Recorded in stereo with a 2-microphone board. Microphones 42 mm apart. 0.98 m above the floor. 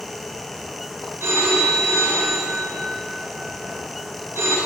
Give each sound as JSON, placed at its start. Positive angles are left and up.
{"t": 1.2, "sound": "a phone ringing", "side_deg": -75, "distance_m": 3.0}